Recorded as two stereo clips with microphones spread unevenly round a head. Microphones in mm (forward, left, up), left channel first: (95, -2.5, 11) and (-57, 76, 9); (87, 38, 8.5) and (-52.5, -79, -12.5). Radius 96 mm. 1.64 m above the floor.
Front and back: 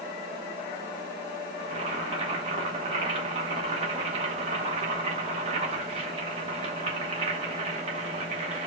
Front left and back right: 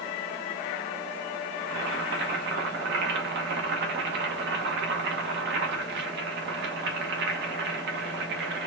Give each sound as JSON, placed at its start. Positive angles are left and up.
{"t": 1.6, "sound": "boiling", "azimuth_deg": -155, "distance_m": 1.1}